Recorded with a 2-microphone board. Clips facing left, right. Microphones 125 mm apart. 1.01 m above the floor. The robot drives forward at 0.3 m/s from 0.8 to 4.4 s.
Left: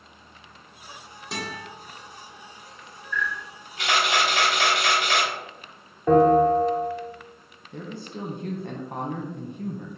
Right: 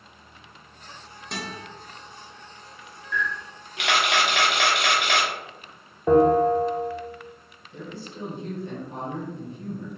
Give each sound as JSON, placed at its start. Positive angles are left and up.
{"t": 1.3, "sound": "a guitar", "side_deg": 5, "distance_m": 1.0}
{"t": 3.1, "sound": "a camera shutter", "side_deg": -70, "distance_m": 1.0}
{"t": 6.1, "sound": "a bell", "side_deg": -10, "distance_m": 0.7}
{"t": 7.7, "sound": "a man speaking", "side_deg": 55, "distance_m": 0.7}